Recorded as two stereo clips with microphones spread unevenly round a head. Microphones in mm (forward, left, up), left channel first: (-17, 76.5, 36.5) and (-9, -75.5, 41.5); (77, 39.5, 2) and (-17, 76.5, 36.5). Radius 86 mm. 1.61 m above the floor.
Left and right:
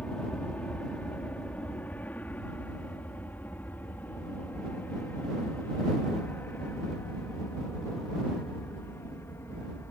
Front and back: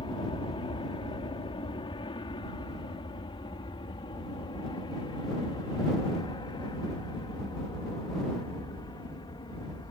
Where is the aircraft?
10° left; by 9.9 s 20° left.